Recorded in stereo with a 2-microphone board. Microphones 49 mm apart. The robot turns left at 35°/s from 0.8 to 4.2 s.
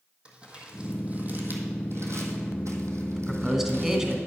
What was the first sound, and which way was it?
Crumpling, 20° right (ahead or behind).